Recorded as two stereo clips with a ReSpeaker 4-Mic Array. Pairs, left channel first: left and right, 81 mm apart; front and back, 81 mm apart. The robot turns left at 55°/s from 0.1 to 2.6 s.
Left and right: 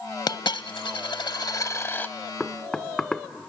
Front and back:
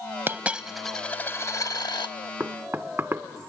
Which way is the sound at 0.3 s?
120° left.